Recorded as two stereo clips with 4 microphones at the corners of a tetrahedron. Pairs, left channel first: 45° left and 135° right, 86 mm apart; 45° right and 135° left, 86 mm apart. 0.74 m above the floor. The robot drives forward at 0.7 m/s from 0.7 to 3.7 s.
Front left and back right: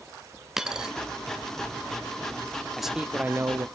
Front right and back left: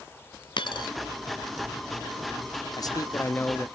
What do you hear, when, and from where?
0.6 s a dropped coin: 50° right, 1.2 m; by 0.9 s 55° right, 1.2 m
2.8 s a man speaking: 45° right, 0.9 m; by 3.7 s 110° right, 0.8 m